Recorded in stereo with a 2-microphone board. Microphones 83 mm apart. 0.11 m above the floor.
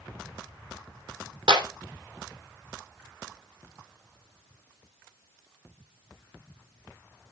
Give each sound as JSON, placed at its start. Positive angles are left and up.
{"t": 1.5, "sound": "a clap", "side_deg": -70, "distance_m": 3.0}